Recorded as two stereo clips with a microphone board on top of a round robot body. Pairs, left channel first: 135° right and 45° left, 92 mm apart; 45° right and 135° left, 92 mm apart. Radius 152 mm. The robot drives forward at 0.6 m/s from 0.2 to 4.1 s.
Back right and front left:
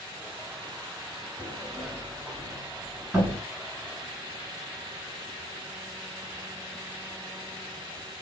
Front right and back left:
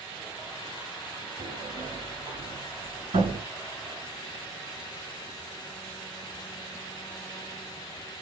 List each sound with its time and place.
1.4 s a sliding door: 115° left, 5 m; by 3.4 s 130° left, 5.5 m